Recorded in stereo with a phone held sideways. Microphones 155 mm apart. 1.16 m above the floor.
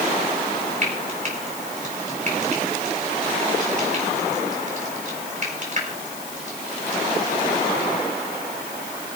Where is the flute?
I don't hear a flute.